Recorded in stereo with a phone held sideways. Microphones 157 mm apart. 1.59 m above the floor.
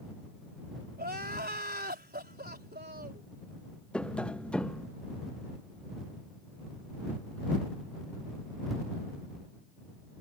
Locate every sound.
1.0 s crying: 90° right
3.9 s tapping: 5° left (ahead or behind)